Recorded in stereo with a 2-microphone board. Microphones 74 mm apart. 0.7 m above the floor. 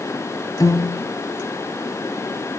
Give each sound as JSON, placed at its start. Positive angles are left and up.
{"t": 0.6, "sound": "a piano", "side_deg": 50, "distance_m": 2.5}